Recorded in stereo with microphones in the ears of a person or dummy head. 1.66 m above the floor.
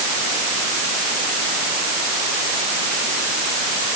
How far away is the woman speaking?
I don't hear a woman speaking.